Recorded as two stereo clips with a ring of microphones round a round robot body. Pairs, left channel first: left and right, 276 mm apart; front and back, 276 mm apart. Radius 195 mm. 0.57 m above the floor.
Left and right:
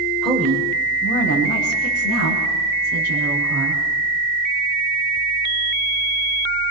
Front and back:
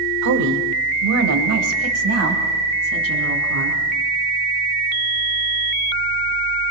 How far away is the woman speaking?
About 2 m.